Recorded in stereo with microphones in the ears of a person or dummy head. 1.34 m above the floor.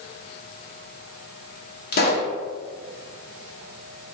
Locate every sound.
1.9 s a pop: 45° left (ahead or behind), 0.7 m